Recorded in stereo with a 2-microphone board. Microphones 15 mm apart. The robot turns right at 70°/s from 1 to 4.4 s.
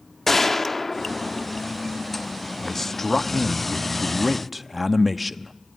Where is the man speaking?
20° left (ahead or behind), 0.7 m; by 5.5 s 5° right (ahead or behind), 0.7 m.